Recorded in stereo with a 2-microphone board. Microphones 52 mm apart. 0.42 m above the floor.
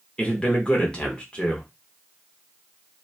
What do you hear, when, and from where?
0.2 s a man speaking: 20° left (ahead or behind), 0.8 m